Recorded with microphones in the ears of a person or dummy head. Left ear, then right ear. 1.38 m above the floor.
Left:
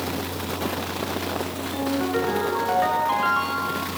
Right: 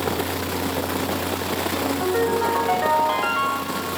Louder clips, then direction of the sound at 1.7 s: Even; 10° right (ahead or behind).